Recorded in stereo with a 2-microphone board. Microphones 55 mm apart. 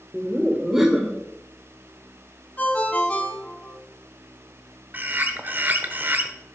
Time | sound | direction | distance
0.1 | laughter | 10° right (ahead or behind) | 1.4 m
2.6 | a ringtone | 25° left (ahead or behind) | 1.4 m
4.9 | a bird | 35° right (ahead or behind) | 0.9 m